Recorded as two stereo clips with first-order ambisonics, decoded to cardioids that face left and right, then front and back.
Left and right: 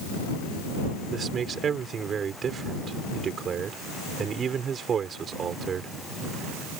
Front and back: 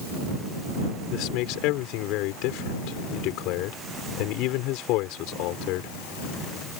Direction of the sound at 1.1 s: 25° right.